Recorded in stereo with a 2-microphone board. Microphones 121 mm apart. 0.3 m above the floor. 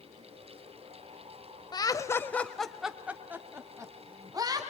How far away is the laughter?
About 1.5 m.